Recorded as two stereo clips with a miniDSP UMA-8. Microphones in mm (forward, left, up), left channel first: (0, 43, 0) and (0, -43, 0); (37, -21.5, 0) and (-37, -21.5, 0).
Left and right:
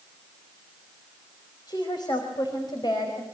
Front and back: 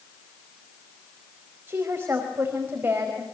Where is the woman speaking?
120° left, 4.5 m.